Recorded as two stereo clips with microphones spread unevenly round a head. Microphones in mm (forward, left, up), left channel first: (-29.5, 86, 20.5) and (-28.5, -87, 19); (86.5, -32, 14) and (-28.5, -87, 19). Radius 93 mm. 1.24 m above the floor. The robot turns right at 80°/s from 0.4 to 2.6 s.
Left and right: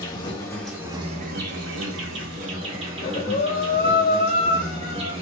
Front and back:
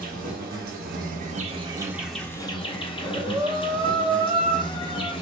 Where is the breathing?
125° left, 1.2 m.